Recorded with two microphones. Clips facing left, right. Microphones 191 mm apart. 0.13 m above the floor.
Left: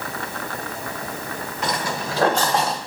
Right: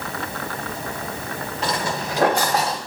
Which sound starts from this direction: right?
Footsteps, at 1.6 s.